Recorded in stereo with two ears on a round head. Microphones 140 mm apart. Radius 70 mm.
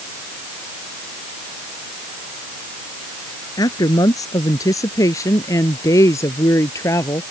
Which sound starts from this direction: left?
A woman speaking, at 3.6 s.